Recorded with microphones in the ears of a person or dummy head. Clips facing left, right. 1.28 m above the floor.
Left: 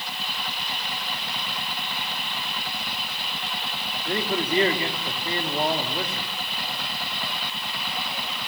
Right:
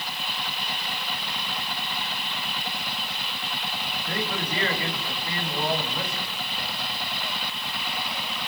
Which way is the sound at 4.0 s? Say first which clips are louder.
Left 5 dB; 30° left (ahead or behind).